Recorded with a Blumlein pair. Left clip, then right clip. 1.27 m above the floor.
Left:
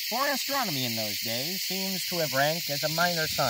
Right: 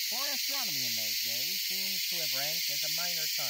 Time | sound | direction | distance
0.1 | a man speaking | 55° left | ?